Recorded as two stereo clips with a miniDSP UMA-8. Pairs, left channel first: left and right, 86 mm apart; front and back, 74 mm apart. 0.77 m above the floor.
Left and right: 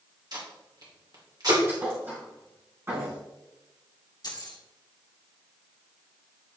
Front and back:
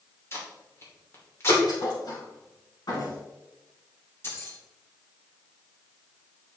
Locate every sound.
0.3 s tape being pulled: 55° right, 2.5 m
1.7 s a thud: 30° right, 4 m
4.2 s keys jangling: 55° left, 1.7 m